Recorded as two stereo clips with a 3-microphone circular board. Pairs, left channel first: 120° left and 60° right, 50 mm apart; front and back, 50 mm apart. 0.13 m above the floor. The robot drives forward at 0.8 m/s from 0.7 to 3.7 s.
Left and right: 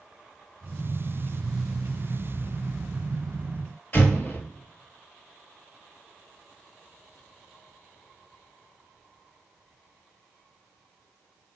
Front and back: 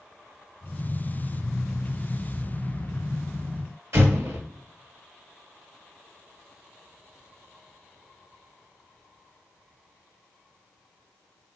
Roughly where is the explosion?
Behind.